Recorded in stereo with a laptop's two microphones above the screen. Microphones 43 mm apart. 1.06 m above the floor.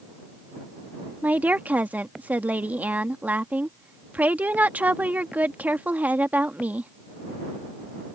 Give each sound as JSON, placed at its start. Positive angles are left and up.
{"t": 1.2, "sound": "a woman speaking", "side_deg": -45}